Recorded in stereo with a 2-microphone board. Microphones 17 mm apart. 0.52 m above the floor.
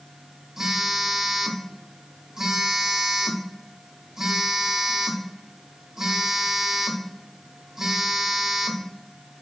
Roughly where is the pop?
I don't hear a pop.